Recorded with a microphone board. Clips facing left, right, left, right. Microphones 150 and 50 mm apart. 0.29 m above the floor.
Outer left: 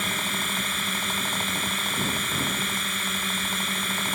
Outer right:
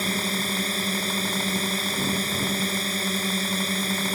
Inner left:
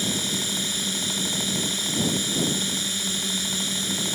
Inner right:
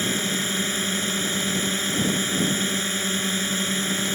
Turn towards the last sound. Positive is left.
turn(degrees=-40)  # may be behind; listen again after turning